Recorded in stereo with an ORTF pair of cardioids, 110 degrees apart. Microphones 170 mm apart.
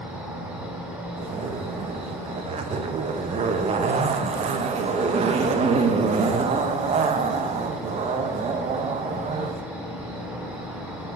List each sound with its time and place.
0.0 s an insect: 5° right, 2.5 m
1.2 s a zipper: 40° right, 0.8 m